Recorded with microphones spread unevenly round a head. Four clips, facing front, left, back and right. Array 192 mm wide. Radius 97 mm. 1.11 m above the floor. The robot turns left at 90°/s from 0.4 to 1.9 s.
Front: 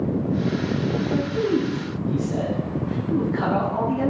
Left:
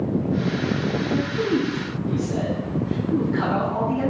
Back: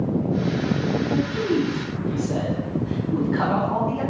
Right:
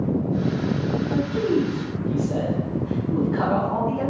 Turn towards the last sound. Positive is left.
turn(degrees=-160)